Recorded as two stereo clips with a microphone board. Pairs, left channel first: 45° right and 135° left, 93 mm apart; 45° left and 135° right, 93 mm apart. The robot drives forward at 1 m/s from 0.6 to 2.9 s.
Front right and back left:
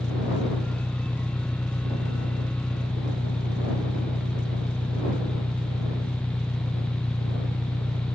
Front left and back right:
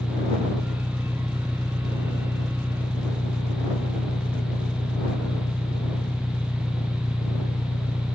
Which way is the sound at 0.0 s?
10° right.